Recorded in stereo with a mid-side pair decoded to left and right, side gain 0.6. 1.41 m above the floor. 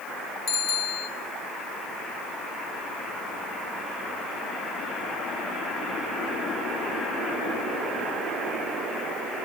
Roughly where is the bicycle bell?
Ahead left.